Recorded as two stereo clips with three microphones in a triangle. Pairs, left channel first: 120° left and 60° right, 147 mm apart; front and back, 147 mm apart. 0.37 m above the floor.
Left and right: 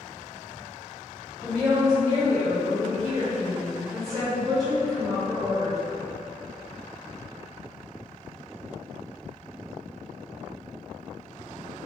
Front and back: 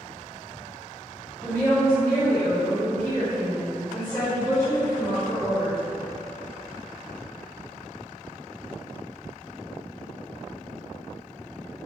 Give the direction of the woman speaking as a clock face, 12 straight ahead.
11 o'clock.